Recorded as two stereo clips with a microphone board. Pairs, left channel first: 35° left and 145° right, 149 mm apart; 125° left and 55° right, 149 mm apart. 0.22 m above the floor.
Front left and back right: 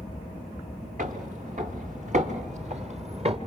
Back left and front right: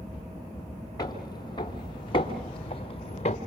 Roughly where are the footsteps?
Behind.